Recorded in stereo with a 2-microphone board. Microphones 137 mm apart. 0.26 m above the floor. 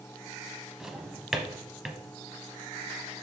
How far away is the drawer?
About 0.8 m.